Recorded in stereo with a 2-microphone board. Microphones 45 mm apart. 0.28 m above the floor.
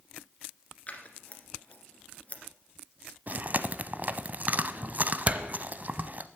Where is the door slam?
35° right (ahead or behind), 0.8 m.